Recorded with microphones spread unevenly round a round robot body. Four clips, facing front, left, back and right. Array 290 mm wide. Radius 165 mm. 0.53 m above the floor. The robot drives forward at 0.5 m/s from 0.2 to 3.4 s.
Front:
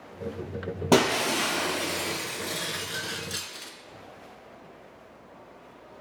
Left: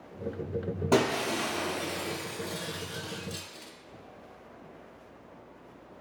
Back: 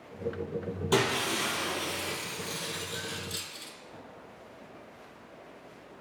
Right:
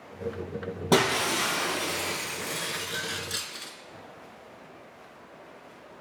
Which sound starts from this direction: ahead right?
Breaking glass, at 0.9 s.